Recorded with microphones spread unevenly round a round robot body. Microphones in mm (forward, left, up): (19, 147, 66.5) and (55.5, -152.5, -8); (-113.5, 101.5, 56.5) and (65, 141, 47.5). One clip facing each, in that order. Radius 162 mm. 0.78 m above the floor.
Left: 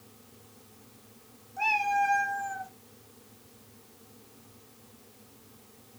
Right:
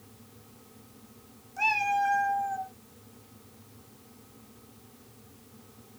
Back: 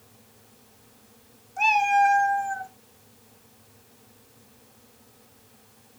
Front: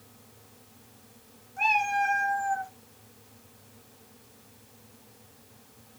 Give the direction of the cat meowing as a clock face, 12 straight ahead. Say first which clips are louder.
Even, back 6 dB; 5 o'clock.